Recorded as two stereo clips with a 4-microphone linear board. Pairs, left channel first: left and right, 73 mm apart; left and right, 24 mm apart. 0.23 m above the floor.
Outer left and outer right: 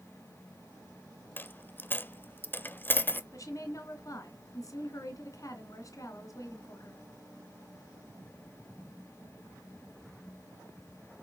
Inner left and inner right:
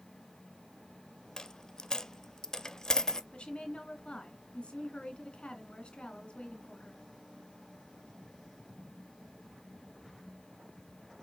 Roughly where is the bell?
No bell in this recording.